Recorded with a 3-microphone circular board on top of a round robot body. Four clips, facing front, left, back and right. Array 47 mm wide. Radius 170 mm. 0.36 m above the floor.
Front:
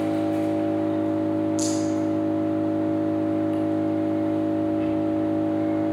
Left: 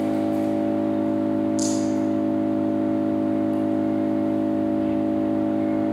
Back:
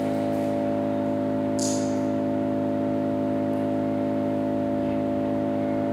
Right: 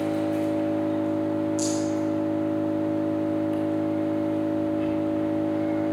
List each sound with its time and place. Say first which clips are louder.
0.0 s an engine running: left 3 dB, front 2 dB; 40° right, 3.5 m
1.6 s a rattle: left 3 dB, front 1 dB; 10° left, 5.5 m